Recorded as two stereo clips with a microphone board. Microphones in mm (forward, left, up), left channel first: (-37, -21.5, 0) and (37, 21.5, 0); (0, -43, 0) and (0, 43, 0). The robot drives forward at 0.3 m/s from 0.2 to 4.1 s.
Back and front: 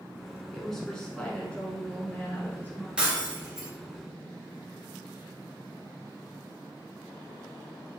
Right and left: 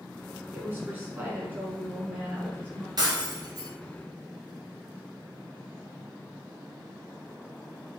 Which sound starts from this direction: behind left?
A woman speaking, at 0.5 s.